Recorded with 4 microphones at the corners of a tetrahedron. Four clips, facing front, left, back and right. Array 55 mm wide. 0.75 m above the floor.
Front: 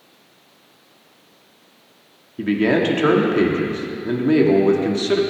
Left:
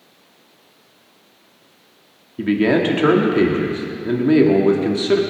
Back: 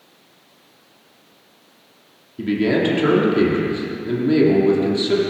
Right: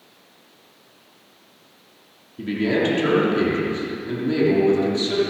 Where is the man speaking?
55° left, 2.0 m.